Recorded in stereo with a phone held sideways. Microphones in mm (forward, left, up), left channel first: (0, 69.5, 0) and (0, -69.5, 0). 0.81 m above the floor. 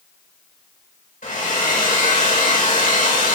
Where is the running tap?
No running tap in this recording.